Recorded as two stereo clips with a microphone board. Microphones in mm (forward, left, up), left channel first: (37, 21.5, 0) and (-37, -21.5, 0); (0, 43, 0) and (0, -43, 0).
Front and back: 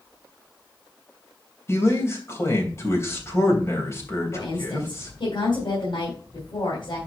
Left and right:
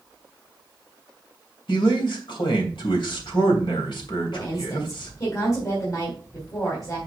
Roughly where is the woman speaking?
Ahead left.